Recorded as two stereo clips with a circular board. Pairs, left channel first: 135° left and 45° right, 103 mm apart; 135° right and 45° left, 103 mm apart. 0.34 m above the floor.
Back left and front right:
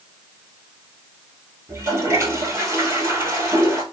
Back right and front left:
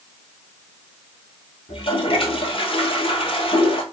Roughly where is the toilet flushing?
Right.